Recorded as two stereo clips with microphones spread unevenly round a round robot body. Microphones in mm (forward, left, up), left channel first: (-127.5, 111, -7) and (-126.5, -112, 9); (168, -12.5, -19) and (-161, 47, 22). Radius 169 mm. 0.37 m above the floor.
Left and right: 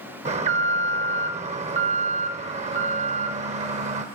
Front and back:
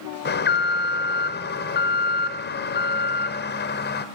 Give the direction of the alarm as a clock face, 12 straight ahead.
1 o'clock.